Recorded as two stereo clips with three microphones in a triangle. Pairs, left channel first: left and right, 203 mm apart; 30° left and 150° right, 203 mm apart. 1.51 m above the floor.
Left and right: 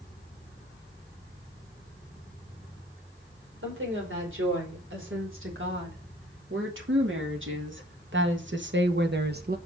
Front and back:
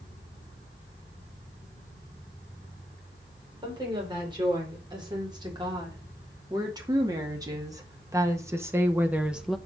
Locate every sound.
3.6 s a woman speaking: 80° right, 4.5 m; by 9.6 s 60° right, 0.8 m